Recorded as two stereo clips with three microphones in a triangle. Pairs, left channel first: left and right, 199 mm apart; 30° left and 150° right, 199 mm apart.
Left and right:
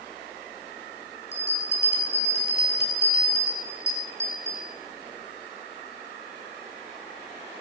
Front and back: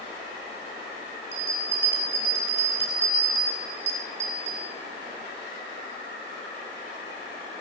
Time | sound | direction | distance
1.3 | a bell | 120° right | 3 m